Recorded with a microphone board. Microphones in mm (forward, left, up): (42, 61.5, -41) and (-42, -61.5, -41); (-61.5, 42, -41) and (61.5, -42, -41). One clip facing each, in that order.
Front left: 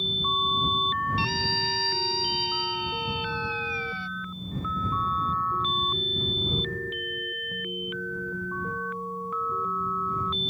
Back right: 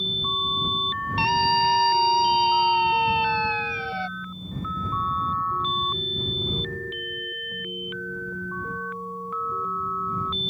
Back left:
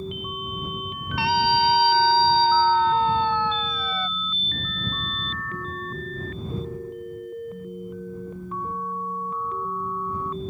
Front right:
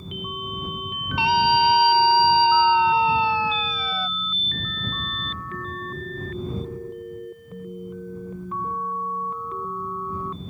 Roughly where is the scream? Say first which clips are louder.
Back right 8 dB, front right 2 dB; right.